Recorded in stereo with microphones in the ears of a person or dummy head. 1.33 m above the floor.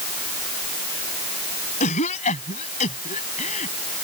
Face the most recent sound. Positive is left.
turn(degrees=40)  # may be behind; listen again after turning